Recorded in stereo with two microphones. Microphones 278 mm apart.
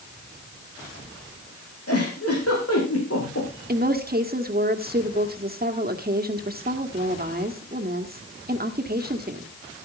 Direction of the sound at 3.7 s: 35° right (ahead or behind).